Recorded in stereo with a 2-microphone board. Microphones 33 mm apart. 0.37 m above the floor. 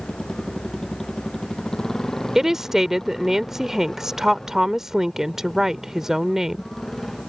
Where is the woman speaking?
15° right (ahead or behind).